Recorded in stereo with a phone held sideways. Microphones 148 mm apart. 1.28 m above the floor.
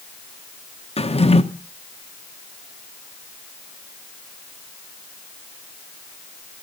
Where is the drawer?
45° left (ahead or behind), 0.9 m.